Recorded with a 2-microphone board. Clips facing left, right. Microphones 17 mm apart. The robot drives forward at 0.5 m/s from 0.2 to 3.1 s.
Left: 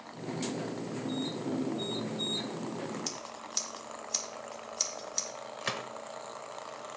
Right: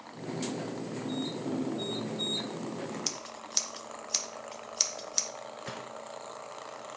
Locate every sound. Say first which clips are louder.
3.1 s scissors: right 2 dB; 25° right (ahead or behind), 0.5 m
5.6 s a gunshot: left 8 dB; 45° left (ahead or behind), 0.6 m